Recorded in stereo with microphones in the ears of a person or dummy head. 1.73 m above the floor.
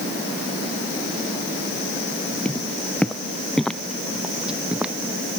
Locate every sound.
2.5 s footsteps: 10° left (ahead or behind); by 4.9 s centre (ahead or behind)